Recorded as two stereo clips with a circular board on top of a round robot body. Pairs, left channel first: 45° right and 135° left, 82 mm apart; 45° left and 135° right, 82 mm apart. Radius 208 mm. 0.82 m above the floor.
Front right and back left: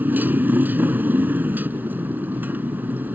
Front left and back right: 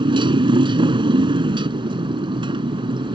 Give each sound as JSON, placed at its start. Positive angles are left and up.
{"t": 0.0, "sound": "a motorcycle", "azimuth_deg": -155}